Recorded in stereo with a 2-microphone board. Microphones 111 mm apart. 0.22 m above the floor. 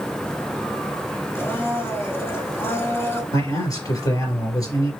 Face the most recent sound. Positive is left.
turn(degrees=30)  # may be behind; listen again after turning